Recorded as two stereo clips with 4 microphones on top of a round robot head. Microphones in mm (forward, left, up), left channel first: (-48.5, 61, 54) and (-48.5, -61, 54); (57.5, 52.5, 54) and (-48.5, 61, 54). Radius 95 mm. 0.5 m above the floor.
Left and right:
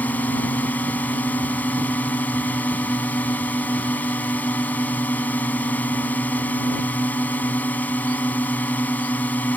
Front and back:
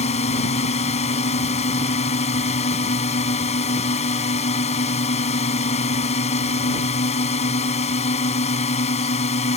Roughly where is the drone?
Ahead.